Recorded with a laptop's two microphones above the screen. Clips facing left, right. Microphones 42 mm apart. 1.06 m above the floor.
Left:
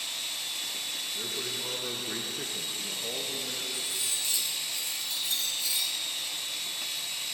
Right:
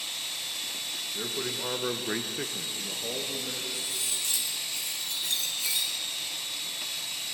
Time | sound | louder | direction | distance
1.1 | a man speaking | right 5 dB | 25° right (ahead or behind) | 1.2 m
3.7 | cutlery clinking | even | 80° right | 2.5 m